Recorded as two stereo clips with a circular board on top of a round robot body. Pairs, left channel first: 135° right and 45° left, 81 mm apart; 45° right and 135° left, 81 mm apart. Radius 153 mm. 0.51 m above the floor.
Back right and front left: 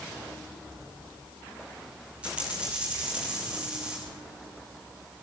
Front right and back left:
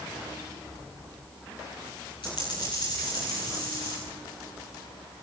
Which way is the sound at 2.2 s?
30° right.